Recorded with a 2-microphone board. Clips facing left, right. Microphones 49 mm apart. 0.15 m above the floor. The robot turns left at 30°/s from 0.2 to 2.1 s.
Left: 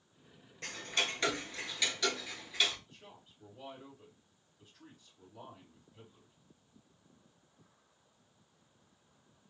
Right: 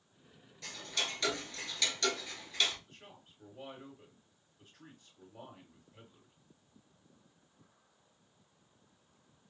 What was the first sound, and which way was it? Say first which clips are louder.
Ticking: left 3 dB; 45° left (ahead or behind).